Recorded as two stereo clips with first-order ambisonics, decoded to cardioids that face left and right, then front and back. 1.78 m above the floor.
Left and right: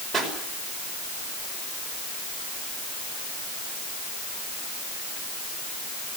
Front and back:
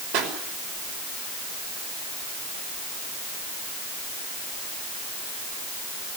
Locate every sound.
0.1 s a pop: 170° right, 5.5 m